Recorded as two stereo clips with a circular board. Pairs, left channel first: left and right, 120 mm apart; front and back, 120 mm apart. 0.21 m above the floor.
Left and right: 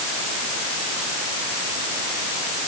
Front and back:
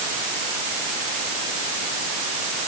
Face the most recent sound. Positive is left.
No sound to turn to.